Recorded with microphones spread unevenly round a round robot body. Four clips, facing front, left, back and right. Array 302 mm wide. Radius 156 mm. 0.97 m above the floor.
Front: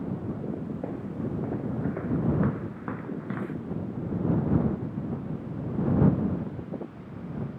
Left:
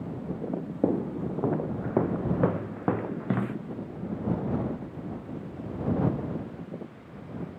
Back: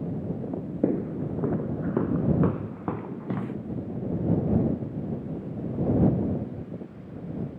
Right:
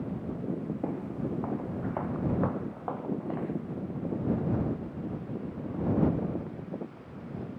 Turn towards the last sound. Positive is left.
turn(degrees=110)